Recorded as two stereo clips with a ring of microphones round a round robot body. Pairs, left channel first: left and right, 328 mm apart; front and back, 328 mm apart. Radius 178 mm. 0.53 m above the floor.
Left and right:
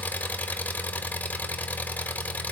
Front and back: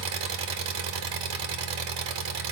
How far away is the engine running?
About 1.2 m.